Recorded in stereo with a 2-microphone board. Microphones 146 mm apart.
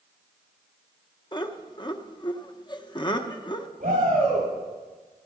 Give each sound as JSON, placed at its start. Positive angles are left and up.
{"t": 1.3, "sound": "laughter", "side_deg": 30, "distance_m": 1.0}
{"t": 3.8, "sound": "a shout", "side_deg": -60, "distance_m": 5.5}